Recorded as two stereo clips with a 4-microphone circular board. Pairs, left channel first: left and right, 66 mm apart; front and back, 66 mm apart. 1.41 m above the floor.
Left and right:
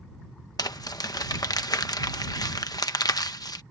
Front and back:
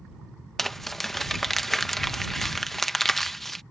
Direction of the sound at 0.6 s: 85° left.